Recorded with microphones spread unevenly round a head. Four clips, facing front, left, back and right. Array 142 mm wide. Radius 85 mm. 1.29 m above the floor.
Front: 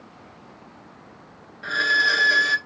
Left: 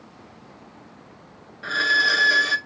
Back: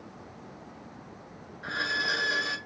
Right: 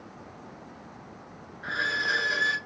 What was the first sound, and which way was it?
A violin, 40° left.